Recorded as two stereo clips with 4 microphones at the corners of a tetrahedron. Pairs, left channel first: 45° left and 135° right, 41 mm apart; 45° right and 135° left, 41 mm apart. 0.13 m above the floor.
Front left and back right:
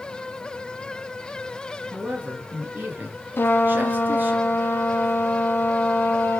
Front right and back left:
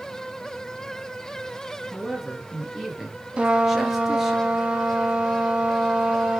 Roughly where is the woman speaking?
Behind right.